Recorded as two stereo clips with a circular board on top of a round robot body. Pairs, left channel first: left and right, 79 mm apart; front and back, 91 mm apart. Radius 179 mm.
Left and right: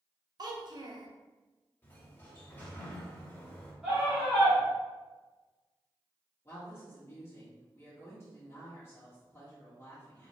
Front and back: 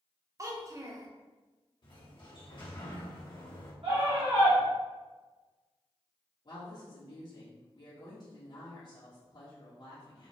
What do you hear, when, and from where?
0.4 s a child speaking: 125° right, 0.9 m
1.8 s a sliding door: 25° left, 1.6 m
3.8 s a scream: 175° right, 1.8 m
6.5 s a woman speaking: 40° left, 1.4 m